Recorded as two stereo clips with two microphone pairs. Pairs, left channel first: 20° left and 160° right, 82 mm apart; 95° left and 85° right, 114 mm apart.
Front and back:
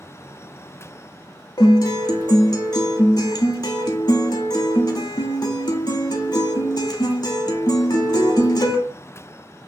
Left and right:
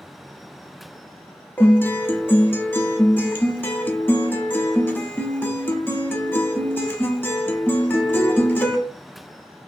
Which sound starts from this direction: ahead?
A guitar, at 1.6 s.